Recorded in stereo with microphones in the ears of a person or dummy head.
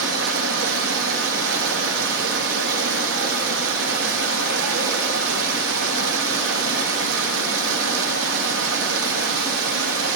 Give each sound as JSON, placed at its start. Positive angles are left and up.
{"t": 0.0, "sound": "running water", "side_deg": -65, "distance_m": 1.4}